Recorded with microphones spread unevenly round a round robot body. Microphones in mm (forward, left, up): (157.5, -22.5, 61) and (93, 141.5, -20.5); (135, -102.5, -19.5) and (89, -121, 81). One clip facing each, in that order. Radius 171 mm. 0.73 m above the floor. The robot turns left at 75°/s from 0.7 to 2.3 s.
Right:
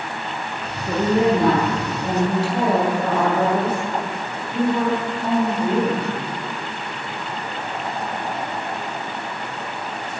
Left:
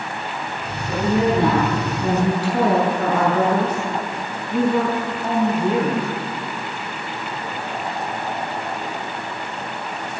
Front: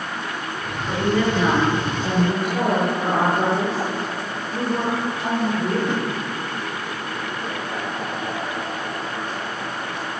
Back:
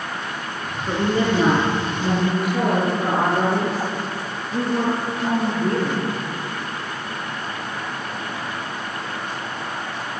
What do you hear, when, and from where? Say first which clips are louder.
0.9 s a woman speaking: right 1 dB, back 1 dB; 110° right, 8.5 m; by 6.1 s 140° left, 8.5 m